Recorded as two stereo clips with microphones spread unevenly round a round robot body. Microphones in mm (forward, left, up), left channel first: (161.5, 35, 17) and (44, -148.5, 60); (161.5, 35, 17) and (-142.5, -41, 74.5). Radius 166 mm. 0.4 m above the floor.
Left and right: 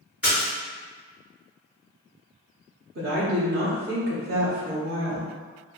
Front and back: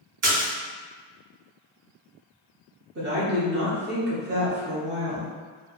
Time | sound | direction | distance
0.2 | a splash | 150° left | 1.6 m
3.0 | a woman speaking | 115° right | 1.1 m